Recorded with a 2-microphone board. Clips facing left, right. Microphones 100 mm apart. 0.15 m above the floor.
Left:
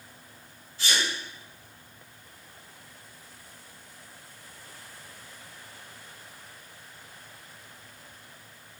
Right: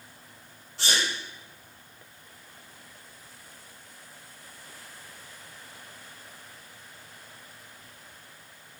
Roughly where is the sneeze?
Right.